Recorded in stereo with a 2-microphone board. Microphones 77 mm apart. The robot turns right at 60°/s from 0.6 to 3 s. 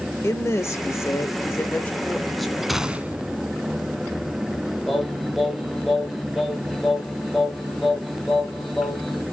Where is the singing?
Centre (ahead or behind), 3.5 m.